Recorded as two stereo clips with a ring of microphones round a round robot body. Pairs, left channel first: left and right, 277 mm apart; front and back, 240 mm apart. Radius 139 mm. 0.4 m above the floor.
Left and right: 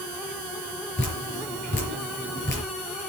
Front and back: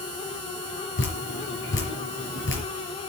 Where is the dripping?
35° left, 5.5 m.